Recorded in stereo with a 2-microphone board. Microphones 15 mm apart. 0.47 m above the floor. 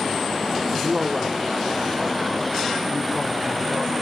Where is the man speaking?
25° right (ahead or behind), 1.2 m; by 3.9 s 15° right (ahead or behind), 1.8 m.